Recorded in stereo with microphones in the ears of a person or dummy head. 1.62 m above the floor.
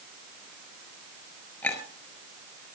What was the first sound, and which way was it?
A clink, 10° left (ahead or behind).